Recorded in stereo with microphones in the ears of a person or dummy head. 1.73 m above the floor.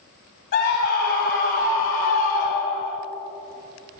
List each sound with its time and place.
0.5 s a scream: 50° left (ahead or behind), 2.5 m; by 3.0 s 60° left (ahead or behind), 1.1 m